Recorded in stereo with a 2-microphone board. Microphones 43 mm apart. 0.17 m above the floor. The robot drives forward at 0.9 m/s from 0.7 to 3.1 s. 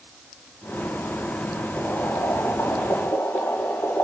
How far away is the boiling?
About 9 m.